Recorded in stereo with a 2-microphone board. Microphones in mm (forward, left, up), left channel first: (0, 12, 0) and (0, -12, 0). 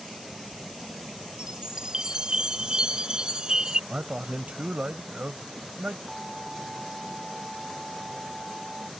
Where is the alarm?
10° right (ahead or behind).